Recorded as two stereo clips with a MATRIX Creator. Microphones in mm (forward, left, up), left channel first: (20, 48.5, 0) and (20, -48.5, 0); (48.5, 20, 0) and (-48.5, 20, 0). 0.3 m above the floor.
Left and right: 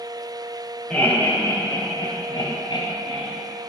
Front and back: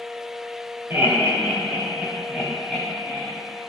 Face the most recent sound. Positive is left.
turn(degrees=95)